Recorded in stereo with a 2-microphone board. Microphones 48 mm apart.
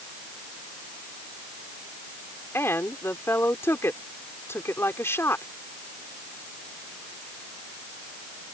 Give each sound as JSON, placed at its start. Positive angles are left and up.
{"t": 2.5, "sound": "a woman speaking", "side_deg": 70}